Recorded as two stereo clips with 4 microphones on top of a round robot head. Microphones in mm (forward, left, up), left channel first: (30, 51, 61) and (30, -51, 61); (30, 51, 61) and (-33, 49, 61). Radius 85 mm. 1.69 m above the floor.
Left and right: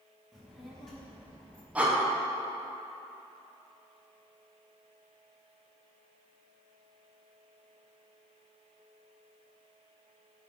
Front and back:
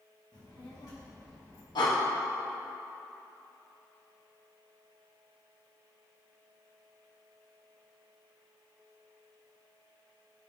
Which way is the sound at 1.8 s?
15° right.